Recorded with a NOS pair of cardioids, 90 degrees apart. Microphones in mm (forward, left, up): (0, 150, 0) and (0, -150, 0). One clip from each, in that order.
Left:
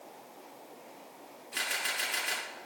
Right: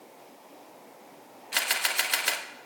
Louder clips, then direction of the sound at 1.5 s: Right 6 dB; 70° right.